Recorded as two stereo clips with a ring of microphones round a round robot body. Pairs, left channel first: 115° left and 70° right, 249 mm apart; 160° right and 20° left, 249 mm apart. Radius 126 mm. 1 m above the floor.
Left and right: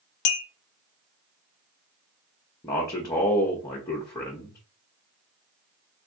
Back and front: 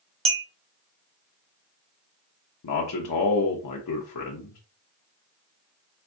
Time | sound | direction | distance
0.2 | a clink | 90° left | 0.7 m
2.6 | a man speaking | 170° right | 0.8 m